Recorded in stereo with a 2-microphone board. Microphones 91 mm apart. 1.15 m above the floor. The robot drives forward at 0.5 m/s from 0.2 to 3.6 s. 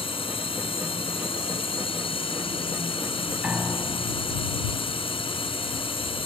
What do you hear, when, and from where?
0.0 s a drone: 80° left; by 6.2 s 75° left (ahead or behind)
3.4 s a piano: 10° right (ahead or behind)